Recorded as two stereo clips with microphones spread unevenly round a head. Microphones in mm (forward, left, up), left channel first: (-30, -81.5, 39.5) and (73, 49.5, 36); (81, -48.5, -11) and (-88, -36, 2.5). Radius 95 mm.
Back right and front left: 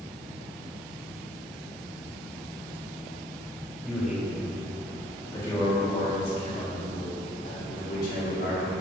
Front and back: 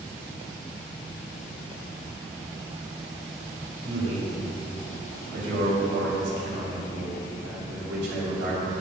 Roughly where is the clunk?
No clunk in this recording.